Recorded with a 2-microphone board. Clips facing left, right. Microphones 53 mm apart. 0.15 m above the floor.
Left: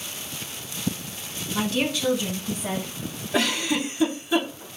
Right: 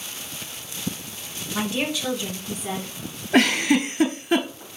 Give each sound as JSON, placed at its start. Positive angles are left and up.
{"t": 1.5, "sound": "a woman speaking", "side_deg": -25, "distance_m": 1.1}
{"t": 3.3, "sound": "a giggle", "side_deg": -60, "distance_m": 0.7}